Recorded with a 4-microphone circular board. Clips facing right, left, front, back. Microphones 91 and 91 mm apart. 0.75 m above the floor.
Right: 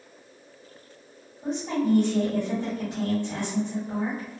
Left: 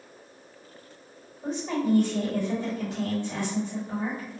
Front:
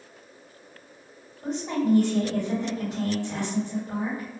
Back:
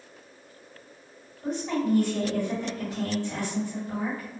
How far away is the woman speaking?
About 1.6 m.